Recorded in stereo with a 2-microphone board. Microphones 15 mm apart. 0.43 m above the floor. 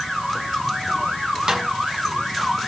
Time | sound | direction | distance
1.5 | a snare drum | 55° right (ahead or behind) | 2.5 m